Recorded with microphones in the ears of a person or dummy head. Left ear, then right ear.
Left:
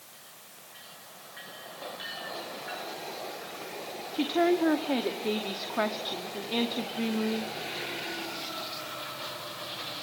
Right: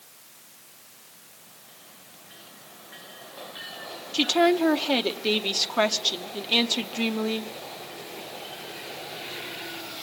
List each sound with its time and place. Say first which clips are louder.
4.1 s a woman speaking: right 5 dB; 90° right, 1.0 m